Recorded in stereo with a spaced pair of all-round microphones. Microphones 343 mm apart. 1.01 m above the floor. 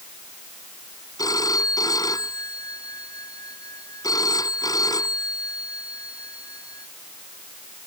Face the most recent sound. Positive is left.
turn(degrees=10)  # may be behind; listen again after turning